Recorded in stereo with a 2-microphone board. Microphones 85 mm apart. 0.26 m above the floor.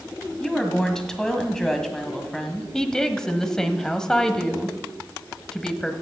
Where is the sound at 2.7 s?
10° left (ahead or behind), 1.1 m.